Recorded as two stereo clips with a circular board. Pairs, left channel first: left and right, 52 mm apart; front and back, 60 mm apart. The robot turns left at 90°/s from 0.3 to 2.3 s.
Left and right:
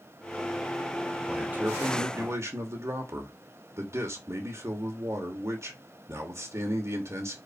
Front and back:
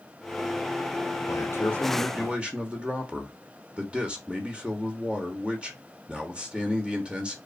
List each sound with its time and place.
1.3 s a man speaking: 15° right, 3 m; by 7.4 s 110° right, 3 m